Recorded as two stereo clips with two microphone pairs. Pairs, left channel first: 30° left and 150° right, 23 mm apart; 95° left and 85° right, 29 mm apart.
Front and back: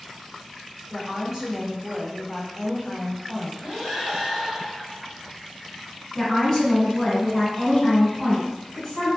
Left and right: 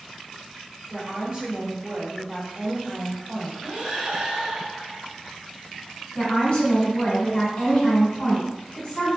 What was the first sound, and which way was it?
A woman speaking, 70° right.